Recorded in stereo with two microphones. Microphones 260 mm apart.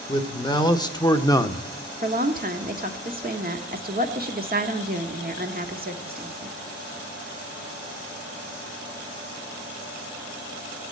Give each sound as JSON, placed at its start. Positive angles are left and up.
{"t": 0.1, "sound": "a man speaking", "side_deg": 15, "distance_m": 1.5}
{"t": 2.0, "sound": "a woman speaking", "side_deg": -35, "distance_m": 1.3}